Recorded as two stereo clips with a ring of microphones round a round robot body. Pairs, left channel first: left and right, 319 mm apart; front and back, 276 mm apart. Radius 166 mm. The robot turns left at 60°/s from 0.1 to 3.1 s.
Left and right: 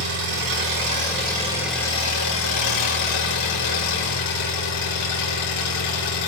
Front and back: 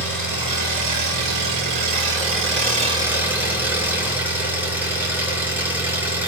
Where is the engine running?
85° right, 3.5 m; by 6.3 s 95° left, 3.5 m.